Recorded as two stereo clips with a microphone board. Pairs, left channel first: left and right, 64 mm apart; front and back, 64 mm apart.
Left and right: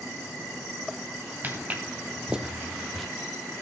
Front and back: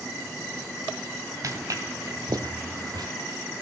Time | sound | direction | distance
1.4 | footsteps | 155° right | 3 m